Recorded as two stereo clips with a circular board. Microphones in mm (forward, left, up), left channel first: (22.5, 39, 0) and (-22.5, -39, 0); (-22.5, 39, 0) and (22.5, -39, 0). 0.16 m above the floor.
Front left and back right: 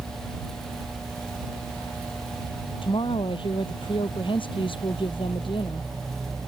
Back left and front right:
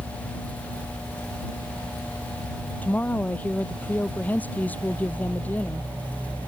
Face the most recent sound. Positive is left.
turn(degrees=50)